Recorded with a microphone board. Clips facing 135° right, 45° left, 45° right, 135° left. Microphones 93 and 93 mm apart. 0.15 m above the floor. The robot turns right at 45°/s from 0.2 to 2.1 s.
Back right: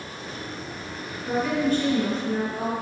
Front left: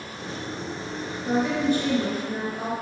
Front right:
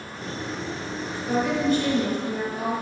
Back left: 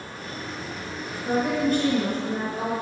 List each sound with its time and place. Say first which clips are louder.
1.2 s a woman speaking: even, even; 85° left, 1.8 m; by 2.7 s 125° left, 1.8 m